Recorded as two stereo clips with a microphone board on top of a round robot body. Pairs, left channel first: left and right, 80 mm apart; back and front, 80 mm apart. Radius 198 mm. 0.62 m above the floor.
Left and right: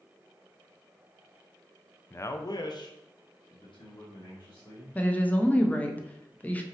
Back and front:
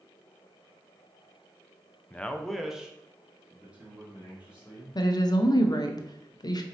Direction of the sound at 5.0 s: 160° left.